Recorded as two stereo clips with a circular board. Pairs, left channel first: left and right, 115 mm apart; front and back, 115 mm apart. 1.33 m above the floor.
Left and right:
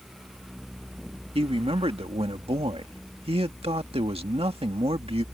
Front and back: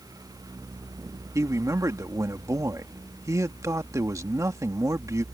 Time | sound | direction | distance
1.4 | a man speaking | 120° right | ?